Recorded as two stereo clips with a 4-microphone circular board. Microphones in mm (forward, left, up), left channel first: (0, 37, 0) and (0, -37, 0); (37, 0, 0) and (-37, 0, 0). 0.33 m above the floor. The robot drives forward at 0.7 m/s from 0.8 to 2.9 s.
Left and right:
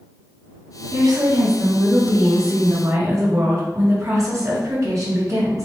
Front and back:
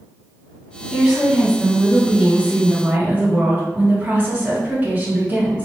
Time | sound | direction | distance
0.9 | a woman speaking | 90° right | 3 m